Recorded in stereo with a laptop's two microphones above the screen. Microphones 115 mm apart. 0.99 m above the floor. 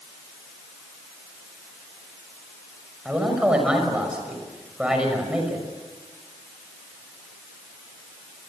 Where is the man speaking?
10° right (ahead or behind), 5.5 m.